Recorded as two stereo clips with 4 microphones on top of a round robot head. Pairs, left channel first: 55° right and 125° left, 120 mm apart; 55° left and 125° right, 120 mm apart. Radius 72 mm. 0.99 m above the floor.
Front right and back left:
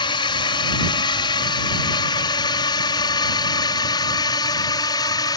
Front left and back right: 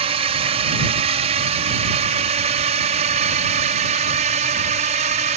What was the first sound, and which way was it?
A drone, 100° right.